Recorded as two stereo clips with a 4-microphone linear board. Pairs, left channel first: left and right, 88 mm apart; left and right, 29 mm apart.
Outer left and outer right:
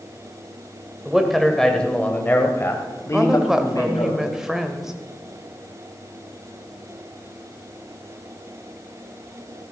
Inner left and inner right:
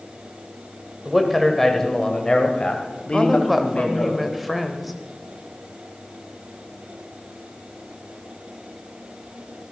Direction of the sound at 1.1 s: 5° right (ahead or behind).